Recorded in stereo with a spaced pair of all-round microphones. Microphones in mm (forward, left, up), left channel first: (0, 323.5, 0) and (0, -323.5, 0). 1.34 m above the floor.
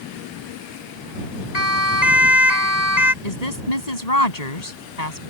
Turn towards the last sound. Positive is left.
turn(degrees=85)